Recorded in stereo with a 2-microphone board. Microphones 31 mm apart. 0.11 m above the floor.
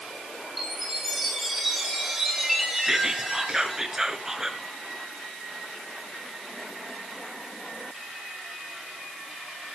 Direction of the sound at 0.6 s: 5° right (ahead or behind).